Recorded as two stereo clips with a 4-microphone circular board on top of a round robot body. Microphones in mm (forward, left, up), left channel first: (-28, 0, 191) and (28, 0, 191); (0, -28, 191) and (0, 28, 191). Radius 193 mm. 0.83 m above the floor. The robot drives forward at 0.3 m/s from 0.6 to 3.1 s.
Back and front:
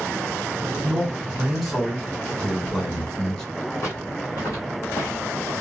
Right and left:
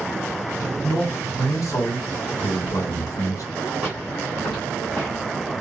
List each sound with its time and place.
0.8 s a man speaking: 75° right, 1.7 m; by 3.4 s 100° right, 1.7 m
3.8 s footsteps: 155° left, 1.5 m; by 5.5 s 155° right, 2 m